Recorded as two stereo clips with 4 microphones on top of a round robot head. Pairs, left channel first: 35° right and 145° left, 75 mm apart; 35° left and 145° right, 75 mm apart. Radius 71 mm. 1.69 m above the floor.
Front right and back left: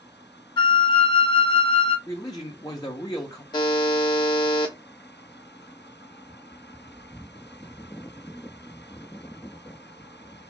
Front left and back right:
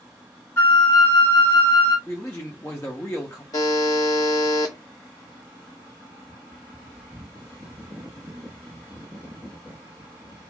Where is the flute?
20° right, 0.6 m.